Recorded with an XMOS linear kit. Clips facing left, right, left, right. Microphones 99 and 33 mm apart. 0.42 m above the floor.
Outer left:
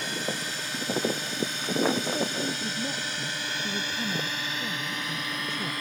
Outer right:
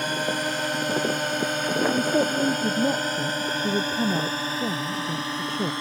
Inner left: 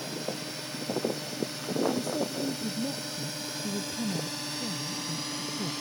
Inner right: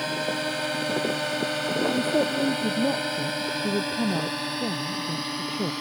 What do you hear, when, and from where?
0.0 s a drone: 55° right (ahead or behind); by 5.8 s 30° right (ahead or behind)
1.9 s a woman speaking: 45° right (ahead or behind)